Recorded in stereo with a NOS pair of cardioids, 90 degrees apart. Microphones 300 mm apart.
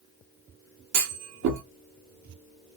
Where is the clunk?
70° right, 1.4 m.